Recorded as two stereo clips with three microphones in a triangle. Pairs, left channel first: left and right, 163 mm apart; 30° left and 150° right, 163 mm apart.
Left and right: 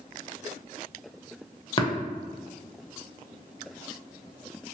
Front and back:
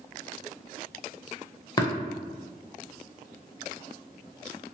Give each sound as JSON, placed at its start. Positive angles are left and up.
{"t": 1.8, "sound": "tapping", "azimuth_deg": 65, "distance_m": 0.7}